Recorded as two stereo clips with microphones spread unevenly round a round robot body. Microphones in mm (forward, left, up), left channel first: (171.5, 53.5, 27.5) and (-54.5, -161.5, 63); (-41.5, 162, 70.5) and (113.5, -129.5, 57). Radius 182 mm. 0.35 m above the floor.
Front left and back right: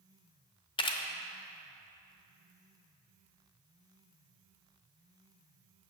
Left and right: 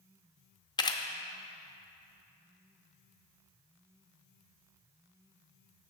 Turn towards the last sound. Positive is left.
turn(degrees=55)